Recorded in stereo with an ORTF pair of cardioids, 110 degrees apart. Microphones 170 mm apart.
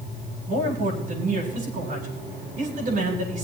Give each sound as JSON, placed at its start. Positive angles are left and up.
{"t": 0.5, "sound": "a man speaking", "azimuth_deg": -50, "distance_m": 8.5}